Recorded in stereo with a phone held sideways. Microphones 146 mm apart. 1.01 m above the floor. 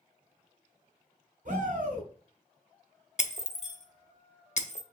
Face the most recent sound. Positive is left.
turn(degrees=55)  # may be behind; listen again after turning